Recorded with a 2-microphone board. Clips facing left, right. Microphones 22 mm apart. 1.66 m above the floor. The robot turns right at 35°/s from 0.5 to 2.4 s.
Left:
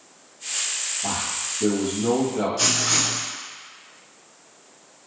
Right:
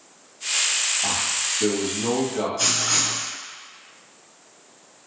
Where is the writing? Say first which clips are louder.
Even; 40° left (ahead or behind), 0.9 m.